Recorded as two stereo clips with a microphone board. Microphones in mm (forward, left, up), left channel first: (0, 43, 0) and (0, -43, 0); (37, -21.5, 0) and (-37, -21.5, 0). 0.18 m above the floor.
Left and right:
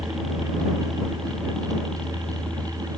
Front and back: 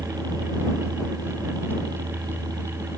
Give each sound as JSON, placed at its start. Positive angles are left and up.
{"t": 0.0, "sound": "a helicopter", "azimuth_deg": 180}